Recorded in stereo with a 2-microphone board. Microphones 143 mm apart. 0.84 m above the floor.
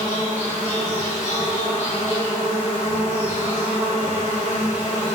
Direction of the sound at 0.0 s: 50° left (ahead or behind).